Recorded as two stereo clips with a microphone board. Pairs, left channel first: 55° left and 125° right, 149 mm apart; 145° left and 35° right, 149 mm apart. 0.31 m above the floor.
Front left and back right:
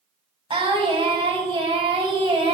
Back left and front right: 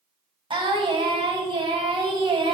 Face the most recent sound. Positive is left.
turn(degrees=-80)